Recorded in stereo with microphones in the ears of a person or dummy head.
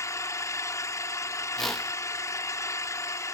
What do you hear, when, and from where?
0.0 s an engine running: 15° left (ahead or behind)
1.6 s a whoosh: centre (ahead or behind)